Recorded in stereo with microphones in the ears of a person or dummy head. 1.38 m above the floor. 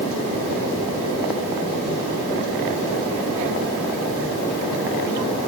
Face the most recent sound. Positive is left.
No sound to turn to.